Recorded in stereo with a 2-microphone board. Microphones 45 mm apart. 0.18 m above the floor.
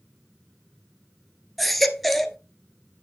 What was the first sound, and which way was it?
A baby crying, 5° left (ahead or behind).